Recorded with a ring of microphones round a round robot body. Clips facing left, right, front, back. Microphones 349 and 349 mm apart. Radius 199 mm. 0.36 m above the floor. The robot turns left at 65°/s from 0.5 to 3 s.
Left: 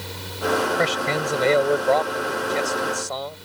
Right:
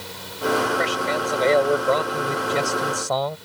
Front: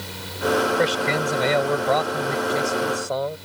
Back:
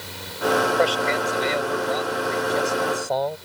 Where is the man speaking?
60° left; by 3.4 s 85° right.